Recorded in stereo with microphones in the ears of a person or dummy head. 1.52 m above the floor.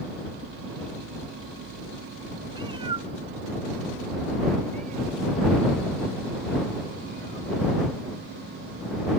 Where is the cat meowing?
25° right (ahead or behind); by 9.2 s 55° right (ahead or behind).